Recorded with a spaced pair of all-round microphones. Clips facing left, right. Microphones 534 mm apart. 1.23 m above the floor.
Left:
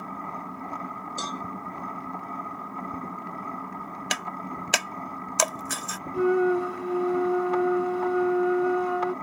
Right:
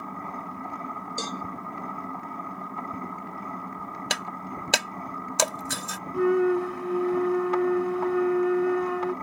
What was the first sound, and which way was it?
A cowbell, 45° right (ahead or behind).